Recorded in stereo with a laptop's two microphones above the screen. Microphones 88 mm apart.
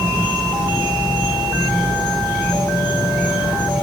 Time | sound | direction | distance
0.0 | an insect | centre (ahead or behind) | 1.9 m